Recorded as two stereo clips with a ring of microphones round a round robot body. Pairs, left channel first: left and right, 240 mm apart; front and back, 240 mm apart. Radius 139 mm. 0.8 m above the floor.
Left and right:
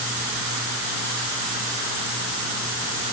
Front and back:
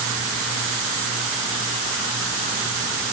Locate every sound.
Only background noise.